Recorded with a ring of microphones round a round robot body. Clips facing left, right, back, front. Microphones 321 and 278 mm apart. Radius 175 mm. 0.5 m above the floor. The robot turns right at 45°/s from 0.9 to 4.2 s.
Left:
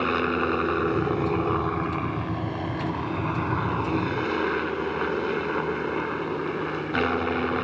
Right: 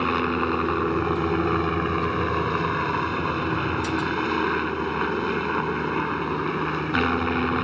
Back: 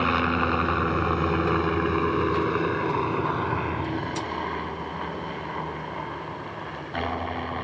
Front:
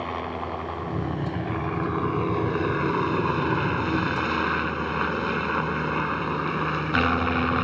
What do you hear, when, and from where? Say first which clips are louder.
0.0 s a helicopter: right 1 dB, back 7 dB; 170° right; by 7.7 s 20° right